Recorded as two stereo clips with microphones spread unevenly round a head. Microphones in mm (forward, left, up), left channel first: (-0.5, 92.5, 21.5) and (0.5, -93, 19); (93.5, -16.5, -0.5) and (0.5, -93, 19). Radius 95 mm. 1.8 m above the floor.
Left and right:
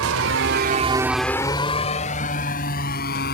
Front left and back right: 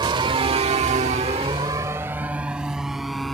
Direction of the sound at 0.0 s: 95° right.